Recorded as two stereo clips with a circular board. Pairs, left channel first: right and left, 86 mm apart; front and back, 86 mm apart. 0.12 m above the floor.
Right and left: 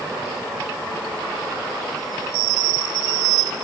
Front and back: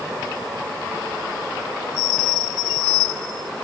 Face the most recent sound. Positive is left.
No sound to turn to.